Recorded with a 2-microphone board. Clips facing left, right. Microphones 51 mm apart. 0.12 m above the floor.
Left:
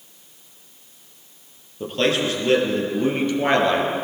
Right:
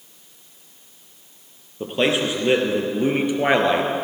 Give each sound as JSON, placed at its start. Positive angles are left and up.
{"t": 1.8, "sound": "a man speaking", "side_deg": -15, "distance_m": 3.0}